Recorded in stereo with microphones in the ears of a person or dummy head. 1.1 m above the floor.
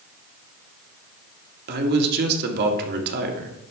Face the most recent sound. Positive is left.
turn(degrees=-45)  # may be behind; listen again after turning